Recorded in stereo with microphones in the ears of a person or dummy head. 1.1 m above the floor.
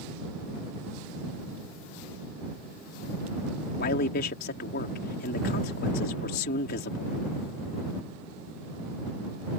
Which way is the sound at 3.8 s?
55° left (ahead or behind).